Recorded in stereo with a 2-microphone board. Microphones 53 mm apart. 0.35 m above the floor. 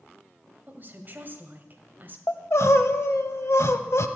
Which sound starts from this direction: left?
Crying, at 2.3 s.